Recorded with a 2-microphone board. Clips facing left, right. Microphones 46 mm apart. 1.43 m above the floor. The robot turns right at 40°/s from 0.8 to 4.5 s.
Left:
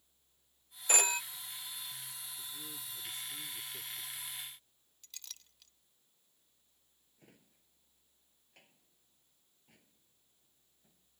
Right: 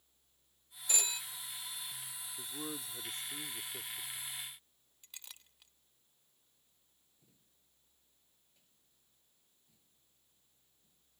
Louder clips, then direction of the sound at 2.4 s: Right 8 dB; 80° right.